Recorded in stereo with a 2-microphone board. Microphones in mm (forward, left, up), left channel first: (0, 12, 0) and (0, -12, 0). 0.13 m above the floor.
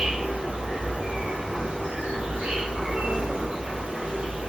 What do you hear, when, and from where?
0.0 s an insect: 65° right (ahead or behind), 1.6 m